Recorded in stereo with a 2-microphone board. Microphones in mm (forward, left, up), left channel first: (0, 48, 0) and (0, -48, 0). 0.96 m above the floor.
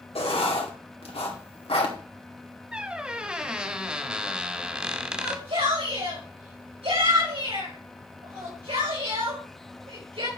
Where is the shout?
75° right (ahead or behind), 5 m.